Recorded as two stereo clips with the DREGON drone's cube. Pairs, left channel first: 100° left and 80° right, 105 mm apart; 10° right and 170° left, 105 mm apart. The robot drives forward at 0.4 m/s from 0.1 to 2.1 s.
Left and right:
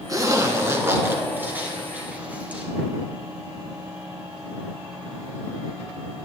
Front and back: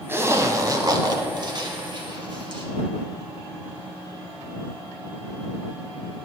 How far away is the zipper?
About 0.8 m.